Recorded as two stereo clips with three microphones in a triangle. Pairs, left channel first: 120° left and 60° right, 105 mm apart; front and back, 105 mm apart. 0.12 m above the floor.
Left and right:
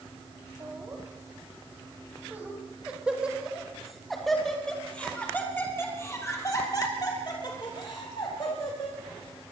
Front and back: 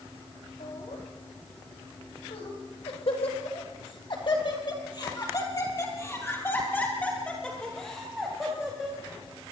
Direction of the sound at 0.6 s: Straight ahead.